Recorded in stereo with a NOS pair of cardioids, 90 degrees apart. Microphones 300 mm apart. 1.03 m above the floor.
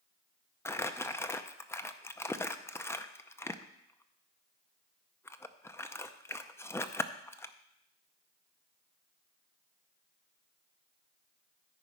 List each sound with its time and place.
0.7 s crumpling: 10° left, 0.6 m